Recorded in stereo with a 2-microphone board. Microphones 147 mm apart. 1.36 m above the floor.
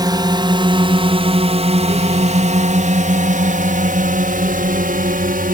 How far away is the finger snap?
I don't hear a finger snap.